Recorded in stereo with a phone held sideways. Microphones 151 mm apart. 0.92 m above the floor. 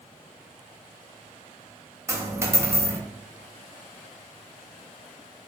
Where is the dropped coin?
20° right (ahead or behind), 0.5 m.